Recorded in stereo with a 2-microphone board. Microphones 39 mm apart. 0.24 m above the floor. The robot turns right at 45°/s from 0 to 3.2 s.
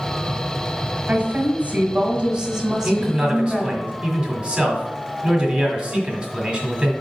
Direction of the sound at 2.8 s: 40° right (ahead or behind).